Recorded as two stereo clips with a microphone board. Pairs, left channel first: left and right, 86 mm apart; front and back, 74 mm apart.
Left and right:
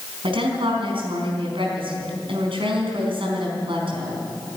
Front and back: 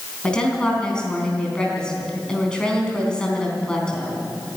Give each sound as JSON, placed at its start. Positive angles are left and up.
{"t": 0.2, "sound": "a woman speaking", "azimuth_deg": -75, "distance_m": 4.0}